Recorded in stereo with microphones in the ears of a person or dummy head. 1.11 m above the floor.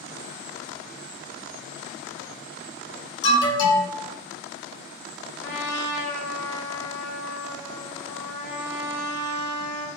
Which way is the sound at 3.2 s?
60° left (ahead or behind).